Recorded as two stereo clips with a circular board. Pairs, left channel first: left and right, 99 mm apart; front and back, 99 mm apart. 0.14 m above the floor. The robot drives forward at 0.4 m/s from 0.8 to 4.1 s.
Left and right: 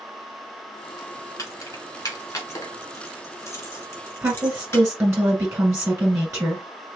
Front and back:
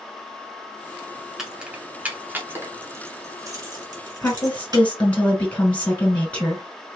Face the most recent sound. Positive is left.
turn(degrees=-60)